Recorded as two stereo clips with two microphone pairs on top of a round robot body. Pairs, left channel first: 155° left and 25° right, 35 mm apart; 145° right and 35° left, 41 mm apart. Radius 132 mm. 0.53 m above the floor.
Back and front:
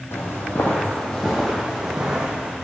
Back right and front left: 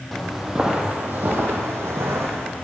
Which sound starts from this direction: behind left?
Footsteps, at 0.1 s.